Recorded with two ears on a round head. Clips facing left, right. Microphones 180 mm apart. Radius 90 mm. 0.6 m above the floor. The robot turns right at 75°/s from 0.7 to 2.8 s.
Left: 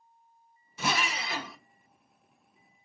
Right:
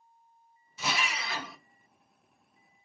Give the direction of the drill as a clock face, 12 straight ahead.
8 o'clock.